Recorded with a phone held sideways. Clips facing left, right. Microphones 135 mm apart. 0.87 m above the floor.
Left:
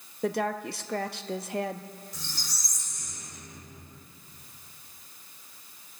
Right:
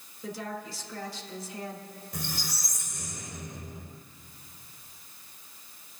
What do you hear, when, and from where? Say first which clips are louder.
0.2 s a woman speaking: left 8 dB; 65° left (ahead or behind), 0.8 m
2.1 s a squeak: right 7 dB; 55° right (ahead or behind), 2.0 m